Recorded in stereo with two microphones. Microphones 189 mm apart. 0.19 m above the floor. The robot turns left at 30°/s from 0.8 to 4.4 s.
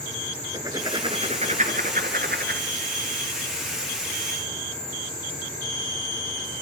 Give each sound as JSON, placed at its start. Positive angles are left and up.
{"t": 0.5, "sound": "writing", "azimuth_deg": -25, "distance_m": 1.9}